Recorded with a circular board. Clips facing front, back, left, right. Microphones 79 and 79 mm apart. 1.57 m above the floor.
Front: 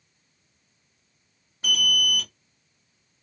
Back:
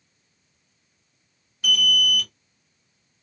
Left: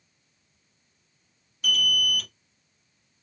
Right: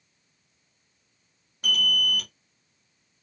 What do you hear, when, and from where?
1.6 s an alarm: 60° right, 1.2 m